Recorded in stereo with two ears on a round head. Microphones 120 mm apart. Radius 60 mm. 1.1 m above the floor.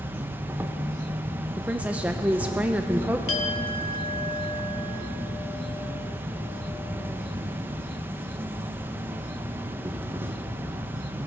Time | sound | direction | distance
0.0 | an insect | 15° right (ahead or behind) | 0.7 m
1.6 | a woman speaking | 10° right (ahead or behind) | 0.5 m
3.3 | a clink | 40° left (ahead or behind) | 1.3 m